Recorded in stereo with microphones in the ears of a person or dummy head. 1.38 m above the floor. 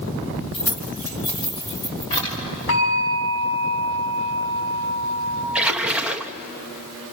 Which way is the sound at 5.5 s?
10° right (ahead or behind).